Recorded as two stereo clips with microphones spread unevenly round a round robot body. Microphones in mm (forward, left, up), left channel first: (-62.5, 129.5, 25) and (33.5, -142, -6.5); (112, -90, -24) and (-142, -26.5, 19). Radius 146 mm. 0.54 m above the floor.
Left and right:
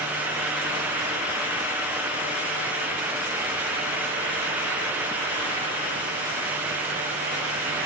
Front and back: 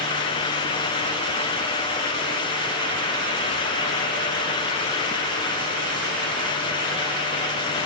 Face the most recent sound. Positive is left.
No sound to turn to.